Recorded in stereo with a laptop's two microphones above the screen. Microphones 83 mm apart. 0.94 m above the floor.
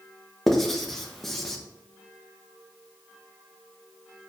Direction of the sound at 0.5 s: 5° left (ahead or behind).